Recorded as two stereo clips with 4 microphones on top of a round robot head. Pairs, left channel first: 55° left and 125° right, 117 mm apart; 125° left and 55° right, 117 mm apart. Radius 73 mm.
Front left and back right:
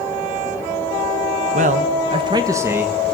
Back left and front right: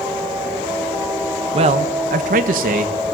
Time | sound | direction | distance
1.5 | a man speaking | 100° right | 2 m